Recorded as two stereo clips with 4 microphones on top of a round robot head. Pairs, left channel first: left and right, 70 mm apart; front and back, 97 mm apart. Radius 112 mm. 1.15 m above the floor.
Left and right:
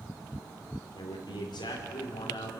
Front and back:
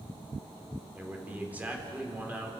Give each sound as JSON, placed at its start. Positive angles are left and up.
{"t": 0.9, "sound": "a man speaking", "azimuth_deg": 105, "distance_m": 3.5}